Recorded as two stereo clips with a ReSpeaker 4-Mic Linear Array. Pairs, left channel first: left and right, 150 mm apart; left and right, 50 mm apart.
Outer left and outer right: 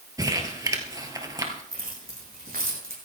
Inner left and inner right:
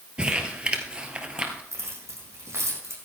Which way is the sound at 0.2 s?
25° right (ahead or behind).